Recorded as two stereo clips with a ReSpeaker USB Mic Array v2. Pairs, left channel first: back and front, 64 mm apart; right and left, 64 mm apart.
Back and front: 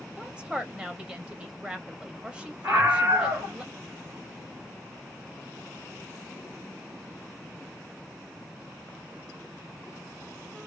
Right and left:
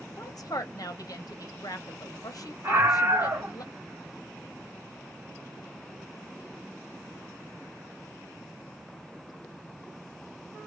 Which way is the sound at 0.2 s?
75° right.